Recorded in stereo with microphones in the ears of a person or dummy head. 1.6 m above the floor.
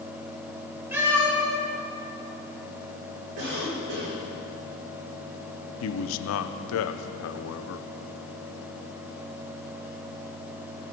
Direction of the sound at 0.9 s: 10° right (ahead or behind).